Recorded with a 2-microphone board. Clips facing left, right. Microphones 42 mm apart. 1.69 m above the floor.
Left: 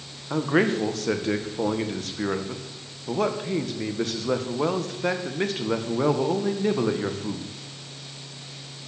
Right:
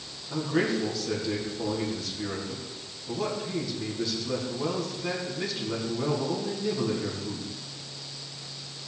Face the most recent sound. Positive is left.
turn(degrees=50)  # may be behind; listen again after turning